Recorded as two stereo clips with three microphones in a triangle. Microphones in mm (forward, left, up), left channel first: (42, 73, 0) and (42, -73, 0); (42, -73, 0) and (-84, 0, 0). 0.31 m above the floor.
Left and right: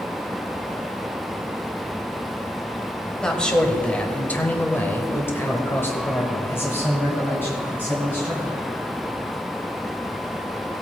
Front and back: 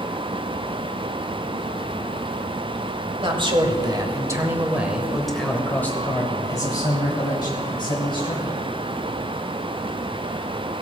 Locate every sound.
3.2 s a man speaking: 170° left, 1.5 m; by 8.6 s 15° left, 2.5 m